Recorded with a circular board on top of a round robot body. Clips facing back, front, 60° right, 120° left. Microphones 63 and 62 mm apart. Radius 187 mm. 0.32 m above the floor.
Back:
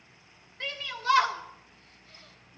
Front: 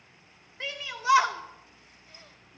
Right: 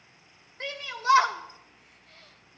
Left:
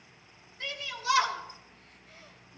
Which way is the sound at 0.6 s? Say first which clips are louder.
Front 1 dB, right 5 dB; 80° right.